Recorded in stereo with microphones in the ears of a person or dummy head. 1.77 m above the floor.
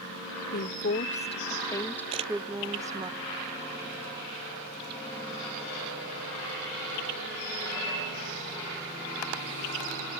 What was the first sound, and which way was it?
A woman speaking, 50° left (ahead or behind).